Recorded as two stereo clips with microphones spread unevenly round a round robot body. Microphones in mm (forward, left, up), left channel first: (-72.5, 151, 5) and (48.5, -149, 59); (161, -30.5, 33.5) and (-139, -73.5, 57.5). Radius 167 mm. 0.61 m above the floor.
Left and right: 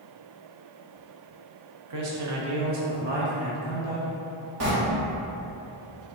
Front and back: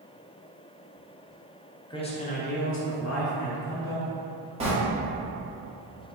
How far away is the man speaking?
About 0.9 m.